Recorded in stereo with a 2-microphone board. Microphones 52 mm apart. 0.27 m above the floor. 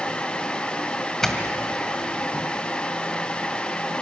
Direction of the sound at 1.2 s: 5° left (ahead or behind).